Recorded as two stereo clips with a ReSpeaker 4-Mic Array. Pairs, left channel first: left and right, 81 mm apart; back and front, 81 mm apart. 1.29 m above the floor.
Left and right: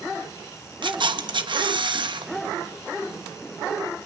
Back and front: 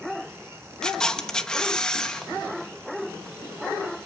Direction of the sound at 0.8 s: 100° right.